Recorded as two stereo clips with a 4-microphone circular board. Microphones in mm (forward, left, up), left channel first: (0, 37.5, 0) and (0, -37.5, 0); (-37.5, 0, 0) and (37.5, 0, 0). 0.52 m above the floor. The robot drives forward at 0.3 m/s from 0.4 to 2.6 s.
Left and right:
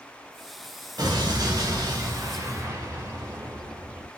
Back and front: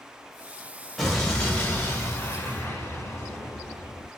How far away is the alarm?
No alarm in this recording.